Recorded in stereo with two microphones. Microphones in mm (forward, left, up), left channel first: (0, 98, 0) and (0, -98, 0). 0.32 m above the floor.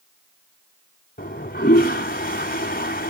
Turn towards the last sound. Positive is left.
turn(degrees=50)  # may be behind; listen again after turning